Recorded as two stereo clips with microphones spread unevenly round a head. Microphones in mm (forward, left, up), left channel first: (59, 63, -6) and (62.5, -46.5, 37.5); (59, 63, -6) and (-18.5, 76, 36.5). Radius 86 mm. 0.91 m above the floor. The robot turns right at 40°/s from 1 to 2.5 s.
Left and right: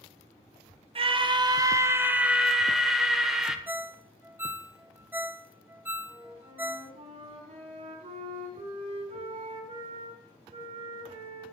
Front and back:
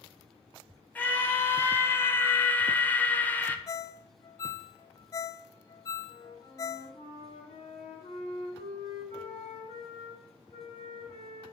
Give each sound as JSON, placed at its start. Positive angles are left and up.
{"t": 0.9, "sound": "a scream", "azimuth_deg": -45, "distance_m": 1.3}
{"t": 3.7, "sound": "a ringtone", "azimuth_deg": -5, "distance_m": 0.5}
{"t": 6.0, "sound": "a flute", "azimuth_deg": -70, "distance_m": 5.0}